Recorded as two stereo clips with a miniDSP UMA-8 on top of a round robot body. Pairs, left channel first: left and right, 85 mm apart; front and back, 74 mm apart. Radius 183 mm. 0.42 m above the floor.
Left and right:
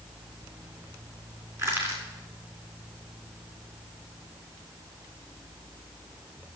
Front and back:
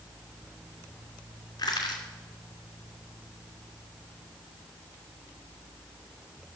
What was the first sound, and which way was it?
Crushing, 25° right.